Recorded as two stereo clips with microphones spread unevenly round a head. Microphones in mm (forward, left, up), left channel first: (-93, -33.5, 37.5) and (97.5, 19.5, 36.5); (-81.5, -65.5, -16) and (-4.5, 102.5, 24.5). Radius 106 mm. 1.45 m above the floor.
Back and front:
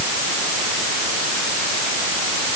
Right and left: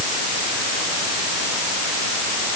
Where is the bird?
No bird in this recording.